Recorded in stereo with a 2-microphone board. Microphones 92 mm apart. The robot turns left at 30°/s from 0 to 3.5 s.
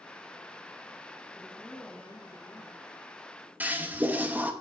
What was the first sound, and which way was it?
A woman speaking, 175° left.